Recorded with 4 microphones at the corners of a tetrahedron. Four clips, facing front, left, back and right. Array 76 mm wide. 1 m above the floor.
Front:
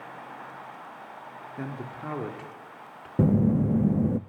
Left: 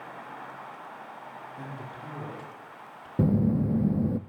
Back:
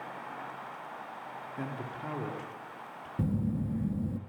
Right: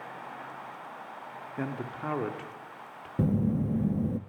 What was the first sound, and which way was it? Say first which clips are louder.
A man speaking: right 9 dB, front 3 dB; 75° right.